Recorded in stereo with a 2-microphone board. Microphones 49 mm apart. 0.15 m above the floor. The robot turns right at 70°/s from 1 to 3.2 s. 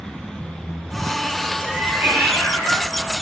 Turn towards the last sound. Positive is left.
turn(degrees=-50)